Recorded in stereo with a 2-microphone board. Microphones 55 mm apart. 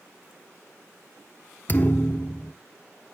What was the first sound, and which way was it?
A thud, 35° left (ahead or behind).